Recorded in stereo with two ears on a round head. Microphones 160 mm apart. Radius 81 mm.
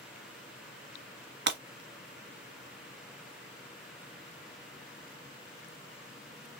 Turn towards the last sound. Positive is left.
turn(degrees=-65)  # may be behind; listen again after turning